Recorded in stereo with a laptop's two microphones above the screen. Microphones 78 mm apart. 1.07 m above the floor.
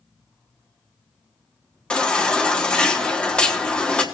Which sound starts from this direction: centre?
A baby crying, at 1.9 s.